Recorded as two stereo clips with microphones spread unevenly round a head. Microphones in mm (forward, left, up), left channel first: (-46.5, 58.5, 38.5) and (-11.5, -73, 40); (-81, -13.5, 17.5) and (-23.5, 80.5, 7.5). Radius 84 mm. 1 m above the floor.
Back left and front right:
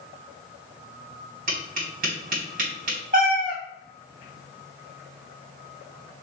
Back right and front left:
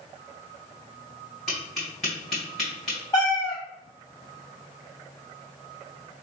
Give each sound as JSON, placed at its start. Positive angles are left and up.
{"t": 1.5, "sound": "tapping", "azimuth_deg": -35, "distance_m": 2.0}
{"t": 3.1, "sound": "a cat meowing", "azimuth_deg": -70, "distance_m": 1.0}